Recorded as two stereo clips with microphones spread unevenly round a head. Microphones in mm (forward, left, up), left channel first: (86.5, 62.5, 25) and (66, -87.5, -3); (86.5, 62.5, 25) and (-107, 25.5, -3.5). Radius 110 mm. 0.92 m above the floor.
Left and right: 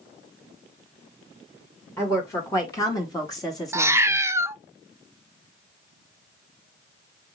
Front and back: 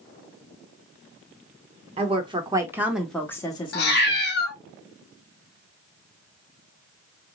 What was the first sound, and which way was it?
A woman speaking, 165° left.